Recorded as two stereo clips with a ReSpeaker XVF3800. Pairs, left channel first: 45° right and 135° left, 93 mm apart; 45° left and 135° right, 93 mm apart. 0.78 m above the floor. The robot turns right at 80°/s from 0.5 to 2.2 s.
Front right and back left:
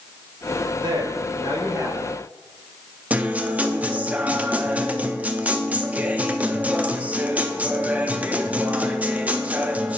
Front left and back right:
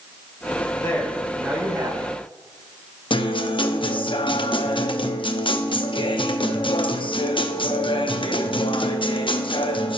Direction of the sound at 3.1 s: 60° left.